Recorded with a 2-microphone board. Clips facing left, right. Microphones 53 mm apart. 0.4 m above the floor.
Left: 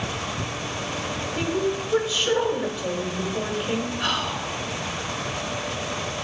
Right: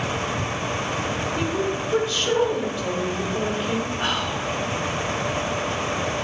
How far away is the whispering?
About 2 m.